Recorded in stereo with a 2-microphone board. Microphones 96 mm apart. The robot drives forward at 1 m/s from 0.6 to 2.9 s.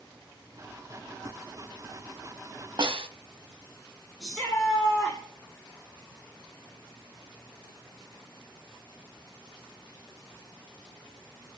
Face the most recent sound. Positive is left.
turn(degrees=5)  # may be behind; listen again after turning